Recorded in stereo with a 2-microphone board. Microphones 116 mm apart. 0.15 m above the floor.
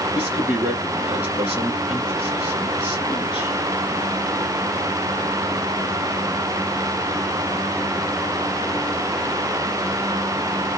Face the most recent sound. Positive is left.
turn(degrees=-10)  # may be behind; listen again after turning